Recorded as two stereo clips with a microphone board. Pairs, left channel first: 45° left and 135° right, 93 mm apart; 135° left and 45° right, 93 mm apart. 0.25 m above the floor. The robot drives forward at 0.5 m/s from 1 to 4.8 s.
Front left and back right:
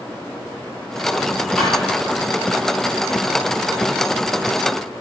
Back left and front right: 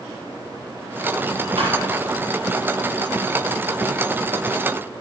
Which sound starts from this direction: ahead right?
A thud, at 1.6 s.